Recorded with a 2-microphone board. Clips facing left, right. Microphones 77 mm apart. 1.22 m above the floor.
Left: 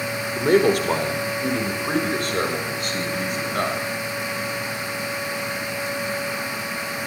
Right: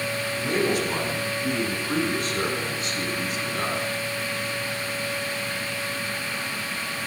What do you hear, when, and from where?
0.3 s a man speaking: 70° left (ahead or behind), 5.5 m; by 3.8 s 55° left (ahead or behind), 8.5 m